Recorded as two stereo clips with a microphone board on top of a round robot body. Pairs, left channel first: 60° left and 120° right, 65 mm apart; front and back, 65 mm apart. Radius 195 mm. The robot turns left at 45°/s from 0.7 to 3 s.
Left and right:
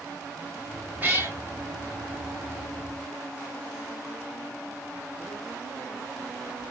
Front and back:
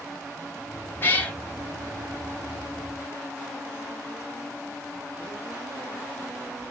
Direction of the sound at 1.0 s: 60° right.